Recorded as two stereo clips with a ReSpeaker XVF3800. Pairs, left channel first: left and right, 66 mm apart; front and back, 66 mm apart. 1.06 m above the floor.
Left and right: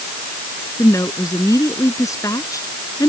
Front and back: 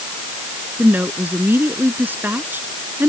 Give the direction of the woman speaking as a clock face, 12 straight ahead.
8 o'clock.